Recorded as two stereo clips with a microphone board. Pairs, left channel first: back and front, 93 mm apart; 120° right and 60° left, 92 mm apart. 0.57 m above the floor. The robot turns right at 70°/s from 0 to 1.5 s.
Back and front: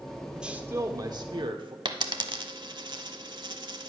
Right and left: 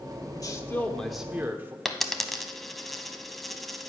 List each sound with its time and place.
0.3 s a man speaking: 85° right, 1.1 m; by 1.8 s 5° right, 1.1 m
1.9 s a dropped coin: 30° right, 0.8 m